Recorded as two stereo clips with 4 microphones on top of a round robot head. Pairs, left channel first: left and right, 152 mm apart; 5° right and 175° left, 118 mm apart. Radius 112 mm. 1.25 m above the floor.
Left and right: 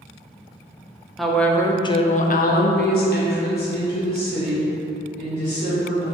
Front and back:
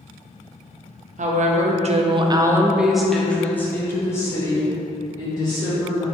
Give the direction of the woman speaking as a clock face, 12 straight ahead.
6 o'clock.